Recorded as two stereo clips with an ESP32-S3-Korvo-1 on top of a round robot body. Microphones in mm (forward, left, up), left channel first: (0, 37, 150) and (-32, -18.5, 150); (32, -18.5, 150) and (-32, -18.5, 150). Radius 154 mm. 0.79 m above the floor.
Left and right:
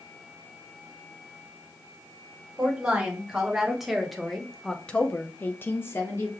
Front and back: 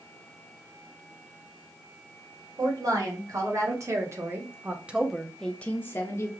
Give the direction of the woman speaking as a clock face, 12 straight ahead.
7 o'clock.